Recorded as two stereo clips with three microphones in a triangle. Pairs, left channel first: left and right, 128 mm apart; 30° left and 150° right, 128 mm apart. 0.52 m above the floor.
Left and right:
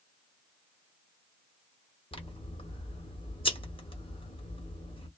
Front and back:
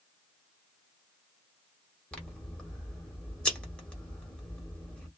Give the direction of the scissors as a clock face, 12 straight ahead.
8 o'clock.